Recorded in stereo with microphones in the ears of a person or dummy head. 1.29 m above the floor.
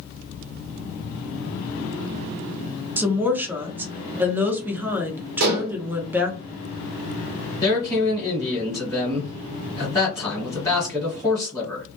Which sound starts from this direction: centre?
A woman speaking, at 3.0 s.